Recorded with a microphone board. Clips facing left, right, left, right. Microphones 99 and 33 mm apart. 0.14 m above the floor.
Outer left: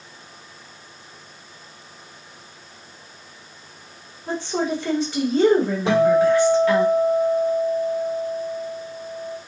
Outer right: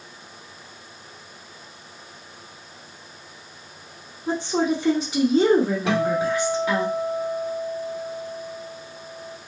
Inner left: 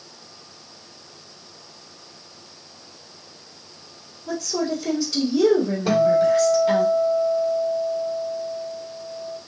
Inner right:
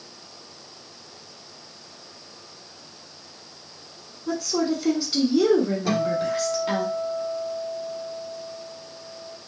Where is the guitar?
30° left (ahead or behind), 1.3 m.